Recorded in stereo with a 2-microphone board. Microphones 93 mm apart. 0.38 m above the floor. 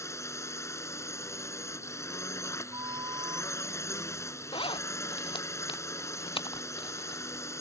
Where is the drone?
30° left (ahead or behind).